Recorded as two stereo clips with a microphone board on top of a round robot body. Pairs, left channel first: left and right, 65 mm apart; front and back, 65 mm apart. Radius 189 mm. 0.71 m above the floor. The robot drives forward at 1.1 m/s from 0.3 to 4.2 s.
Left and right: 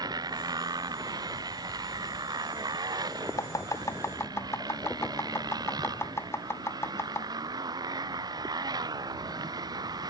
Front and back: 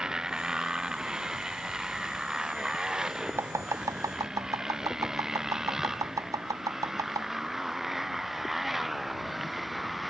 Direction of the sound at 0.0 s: 100° right.